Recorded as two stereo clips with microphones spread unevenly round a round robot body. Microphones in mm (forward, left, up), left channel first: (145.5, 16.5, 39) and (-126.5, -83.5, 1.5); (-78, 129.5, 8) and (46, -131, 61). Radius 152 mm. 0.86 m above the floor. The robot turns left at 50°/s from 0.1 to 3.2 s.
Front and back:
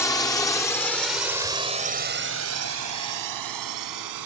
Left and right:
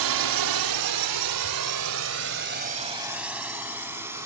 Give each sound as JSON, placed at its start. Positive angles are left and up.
{"t": 0.0, "sound": "a drone", "azimuth_deg": -65}